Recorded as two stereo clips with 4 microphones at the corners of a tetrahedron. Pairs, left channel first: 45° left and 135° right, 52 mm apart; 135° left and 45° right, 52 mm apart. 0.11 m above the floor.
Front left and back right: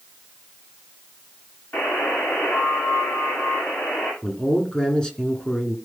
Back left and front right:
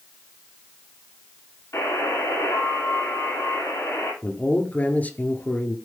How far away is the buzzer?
About 8.5 m.